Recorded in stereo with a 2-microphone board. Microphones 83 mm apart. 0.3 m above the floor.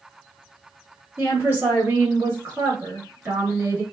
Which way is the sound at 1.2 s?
25° right (ahead or behind).